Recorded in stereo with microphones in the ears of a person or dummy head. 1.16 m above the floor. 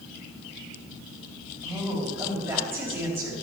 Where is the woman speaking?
15° right (ahead or behind), 3 m.